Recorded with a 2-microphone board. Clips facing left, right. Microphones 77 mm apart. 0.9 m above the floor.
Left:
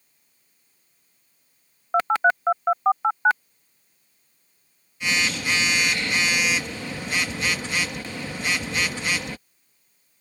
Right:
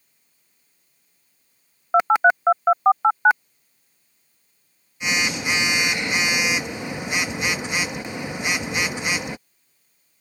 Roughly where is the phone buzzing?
Centre.